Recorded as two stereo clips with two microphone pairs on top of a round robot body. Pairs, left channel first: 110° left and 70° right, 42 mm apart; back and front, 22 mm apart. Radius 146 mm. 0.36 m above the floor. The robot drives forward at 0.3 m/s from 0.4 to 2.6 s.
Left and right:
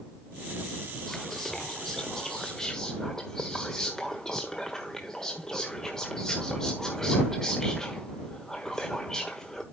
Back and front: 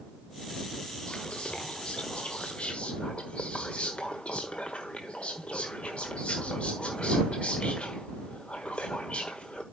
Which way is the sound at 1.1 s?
175° right.